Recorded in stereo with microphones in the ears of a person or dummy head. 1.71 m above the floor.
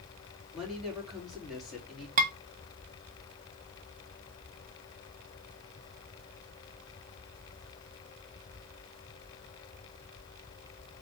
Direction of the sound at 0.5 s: 5° left (ahead or behind).